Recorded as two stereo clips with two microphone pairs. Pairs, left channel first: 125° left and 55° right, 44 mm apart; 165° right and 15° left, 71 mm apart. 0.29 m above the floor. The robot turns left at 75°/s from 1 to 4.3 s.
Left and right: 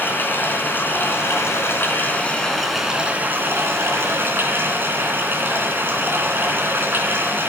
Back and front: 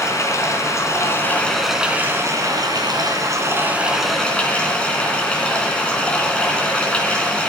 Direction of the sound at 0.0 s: 160° left.